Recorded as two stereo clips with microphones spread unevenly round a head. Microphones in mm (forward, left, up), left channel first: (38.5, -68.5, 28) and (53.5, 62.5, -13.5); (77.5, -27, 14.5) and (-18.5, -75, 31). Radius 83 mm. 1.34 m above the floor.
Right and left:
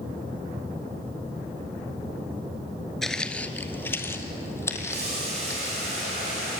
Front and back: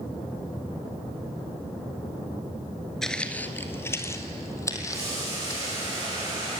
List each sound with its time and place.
3.0 s footsteps: 80° right, 1.3 m; by 5.9 s 35° right, 5 m
4.9 s boiling: 135° left, 9 m